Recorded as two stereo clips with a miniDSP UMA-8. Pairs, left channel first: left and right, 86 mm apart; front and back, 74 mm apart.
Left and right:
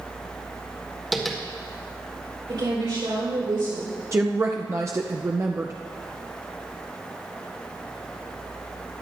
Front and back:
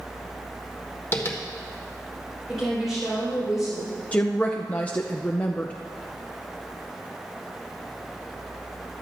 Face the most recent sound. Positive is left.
turn(degrees=-60)